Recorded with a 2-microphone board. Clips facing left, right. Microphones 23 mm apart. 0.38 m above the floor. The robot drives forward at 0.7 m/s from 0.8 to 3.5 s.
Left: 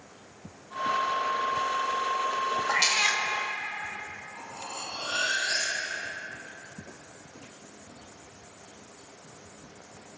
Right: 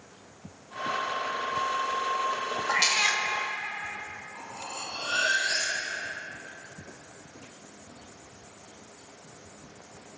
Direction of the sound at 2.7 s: 10° right (ahead or behind).